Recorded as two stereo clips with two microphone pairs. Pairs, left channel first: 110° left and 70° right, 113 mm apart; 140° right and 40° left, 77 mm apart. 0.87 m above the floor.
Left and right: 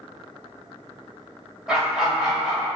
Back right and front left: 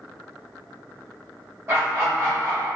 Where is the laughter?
10° left, 0.8 m.